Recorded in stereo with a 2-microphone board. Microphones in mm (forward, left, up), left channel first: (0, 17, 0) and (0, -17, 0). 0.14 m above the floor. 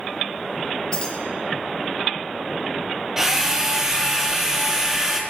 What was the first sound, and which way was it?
Keys jangling, 25° left (ahead or behind).